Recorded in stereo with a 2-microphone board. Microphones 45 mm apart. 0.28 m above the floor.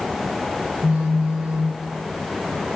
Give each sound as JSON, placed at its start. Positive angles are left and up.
{"t": 0.8, "sound": "a phone buzzing", "side_deg": -15, "distance_m": 2.0}